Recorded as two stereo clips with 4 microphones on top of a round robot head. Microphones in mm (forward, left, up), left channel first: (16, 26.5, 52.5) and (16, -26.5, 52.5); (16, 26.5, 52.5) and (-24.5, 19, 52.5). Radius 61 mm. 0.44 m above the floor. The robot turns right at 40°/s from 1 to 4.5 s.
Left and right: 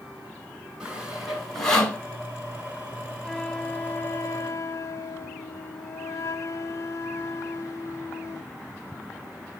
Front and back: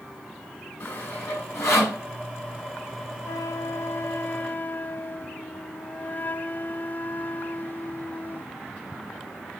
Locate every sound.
0.8 s sawing: 15° right, 7 m; by 2.0 s 25° left, 7 m
3.2 s a flute: 10° left, 0.5 m; by 8.5 s 60° left, 0.5 m